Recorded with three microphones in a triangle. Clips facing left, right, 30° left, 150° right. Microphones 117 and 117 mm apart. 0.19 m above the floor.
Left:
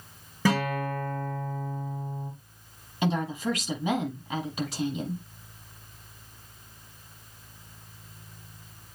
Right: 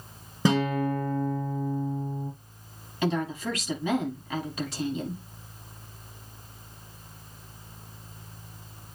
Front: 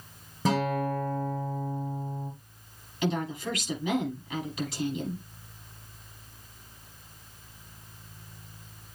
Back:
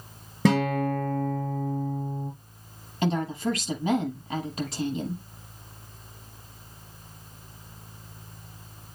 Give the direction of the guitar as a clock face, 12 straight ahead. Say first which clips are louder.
Right 2 dB, back 4 dB; 5 o'clock.